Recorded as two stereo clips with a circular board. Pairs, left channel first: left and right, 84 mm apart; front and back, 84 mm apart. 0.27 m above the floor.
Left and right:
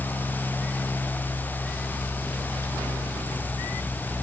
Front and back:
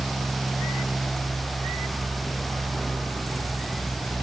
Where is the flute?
No flute in this recording.